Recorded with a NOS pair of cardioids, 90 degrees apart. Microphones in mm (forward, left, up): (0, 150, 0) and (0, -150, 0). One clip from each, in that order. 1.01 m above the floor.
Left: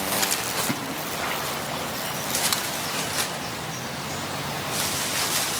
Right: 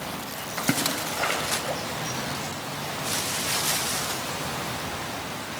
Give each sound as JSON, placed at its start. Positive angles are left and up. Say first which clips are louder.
{"t": 0.6, "sound": "a splash", "louder": "right 1 dB", "azimuth_deg": -65, "distance_m": 7.0}